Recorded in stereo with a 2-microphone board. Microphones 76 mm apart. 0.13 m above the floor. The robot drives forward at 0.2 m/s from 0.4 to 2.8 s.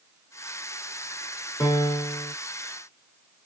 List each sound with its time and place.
1.6 s a piano: 50° left (ahead or behind), 0.9 m; by 2.3 s 40° left (ahead or behind), 1.0 m